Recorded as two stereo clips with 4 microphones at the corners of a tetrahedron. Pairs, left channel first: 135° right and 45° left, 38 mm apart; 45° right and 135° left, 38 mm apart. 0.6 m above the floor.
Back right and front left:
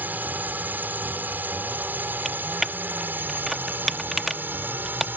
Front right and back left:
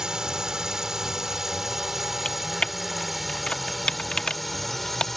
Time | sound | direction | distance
0.0 | a drone | 65° left | ?
2.2 | typing on a keyboard | 35° right | ?